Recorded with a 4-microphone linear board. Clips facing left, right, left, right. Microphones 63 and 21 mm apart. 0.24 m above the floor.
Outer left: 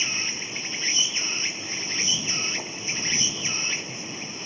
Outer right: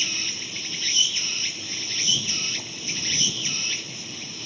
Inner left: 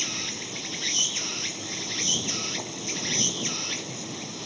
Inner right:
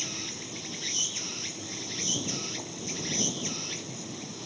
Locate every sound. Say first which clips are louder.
0.0 s an insect: outer left 1 dB, inner left 5 dB; 25° left (ahead or behind)